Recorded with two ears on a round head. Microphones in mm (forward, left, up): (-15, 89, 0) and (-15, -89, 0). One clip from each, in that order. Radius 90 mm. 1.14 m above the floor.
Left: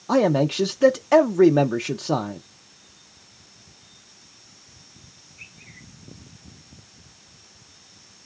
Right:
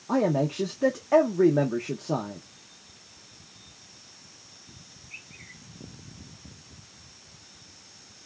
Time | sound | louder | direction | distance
0.1 | a man speaking | left 6 dB | 85° left | 0.5 m